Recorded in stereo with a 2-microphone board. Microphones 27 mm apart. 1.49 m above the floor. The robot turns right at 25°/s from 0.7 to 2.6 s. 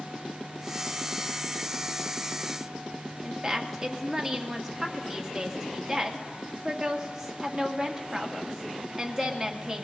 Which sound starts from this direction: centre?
A woman speaking, at 3.2 s.